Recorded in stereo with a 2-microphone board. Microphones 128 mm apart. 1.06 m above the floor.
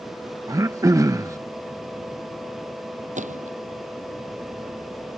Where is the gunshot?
70° right (ahead or behind).